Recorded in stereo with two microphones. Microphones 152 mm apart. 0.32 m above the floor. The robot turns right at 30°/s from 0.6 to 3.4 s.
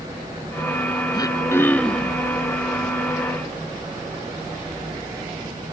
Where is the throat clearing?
150° left; by 2.2 s 175° right.